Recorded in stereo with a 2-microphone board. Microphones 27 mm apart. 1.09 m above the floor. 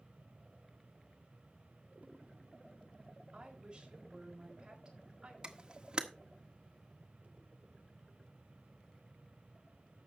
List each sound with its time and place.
3.3 s a woman speaking: 30° right (ahead or behind), 4.5 m
5.4 s a camera shutter: 35° right (ahead or behind), 1.4 m